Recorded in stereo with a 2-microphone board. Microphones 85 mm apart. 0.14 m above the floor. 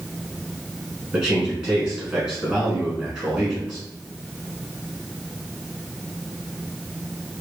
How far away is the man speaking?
About 1.2 m.